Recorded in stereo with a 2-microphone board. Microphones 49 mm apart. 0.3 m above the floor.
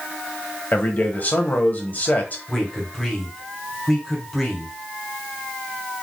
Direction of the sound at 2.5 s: 5° left (ahead or behind).